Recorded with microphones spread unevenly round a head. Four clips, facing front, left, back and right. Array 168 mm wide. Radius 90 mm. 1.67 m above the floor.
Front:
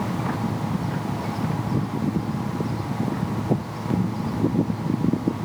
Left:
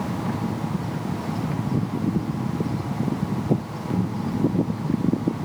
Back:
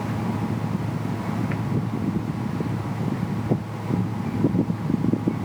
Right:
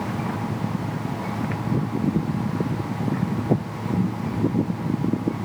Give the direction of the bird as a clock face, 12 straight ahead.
I don't hear a bird.